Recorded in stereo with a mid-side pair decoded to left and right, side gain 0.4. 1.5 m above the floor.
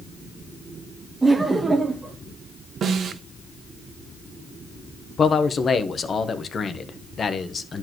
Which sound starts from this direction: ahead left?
A man speaking, at 5.2 s.